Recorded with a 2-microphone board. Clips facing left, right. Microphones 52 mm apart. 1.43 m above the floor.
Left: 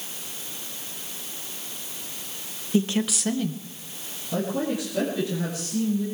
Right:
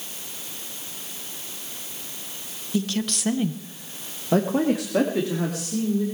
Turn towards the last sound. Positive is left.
turn(degrees=-90)